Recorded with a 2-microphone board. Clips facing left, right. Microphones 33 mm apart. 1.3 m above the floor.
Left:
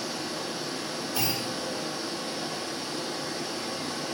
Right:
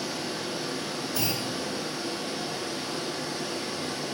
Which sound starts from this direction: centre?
A clunk, at 1.2 s.